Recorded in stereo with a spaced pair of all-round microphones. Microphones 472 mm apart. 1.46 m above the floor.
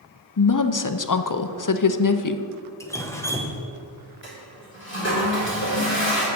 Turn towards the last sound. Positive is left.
turn(degrees=25)  # may be behind; listen again after turning